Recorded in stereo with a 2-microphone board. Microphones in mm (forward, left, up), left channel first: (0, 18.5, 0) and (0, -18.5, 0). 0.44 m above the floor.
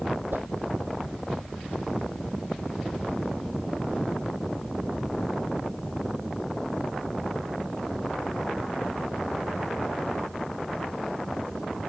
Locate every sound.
0.3 s a whoosh: 75° right (ahead or behind)